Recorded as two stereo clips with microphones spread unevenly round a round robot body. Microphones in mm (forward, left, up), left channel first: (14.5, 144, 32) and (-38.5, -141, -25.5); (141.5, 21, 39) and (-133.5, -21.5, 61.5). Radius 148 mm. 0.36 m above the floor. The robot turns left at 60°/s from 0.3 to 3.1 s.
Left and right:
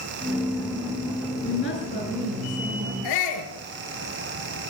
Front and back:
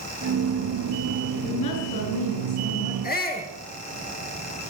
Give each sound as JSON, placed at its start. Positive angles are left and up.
{"t": 1.4, "sound": "a woman speaking", "azimuth_deg": 35, "distance_m": 6.0}
{"t": 3.0, "sound": "a shout", "azimuth_deg": 70, "distance_m": 6.5}